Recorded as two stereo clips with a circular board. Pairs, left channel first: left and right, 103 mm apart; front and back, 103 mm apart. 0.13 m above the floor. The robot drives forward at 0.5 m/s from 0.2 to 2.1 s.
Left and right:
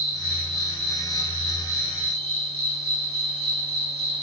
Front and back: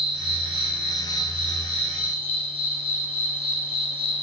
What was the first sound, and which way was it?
An insect, 145° right.